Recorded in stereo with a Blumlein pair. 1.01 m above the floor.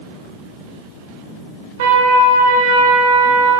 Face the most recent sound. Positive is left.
turn(degrees=-55)